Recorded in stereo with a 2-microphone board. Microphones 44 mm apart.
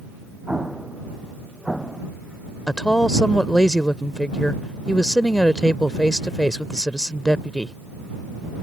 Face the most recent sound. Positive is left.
turn(degrees=15)  # may be behind; listen again after turning